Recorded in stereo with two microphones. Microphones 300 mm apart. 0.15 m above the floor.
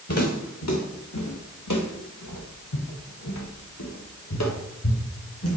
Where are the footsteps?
55° left (ahead or behind), 2 m; by 5.6 s 50° left (ahead or behind), 3 m.